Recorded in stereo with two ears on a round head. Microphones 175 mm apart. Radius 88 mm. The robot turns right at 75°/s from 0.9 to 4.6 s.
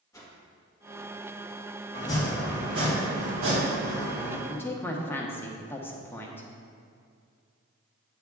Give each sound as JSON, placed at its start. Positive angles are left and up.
{"t": 0.1, "sound": "a whoosh", "side_deg": 15, "distance_m": 1.7}
{"t": 1.9, "sound": "chopping", "azimuth_deg": 145, "distance_m": 2.5}
{"t": 4.5, "sound": "a woman speaking", "side_deg": 20, "distance_m": 1.1}